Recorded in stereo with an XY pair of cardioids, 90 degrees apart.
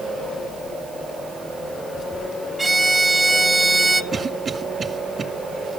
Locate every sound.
2.6 s a violin: 20° right, 0.8 m
4.1 s a cough: 40° right, 1.9 m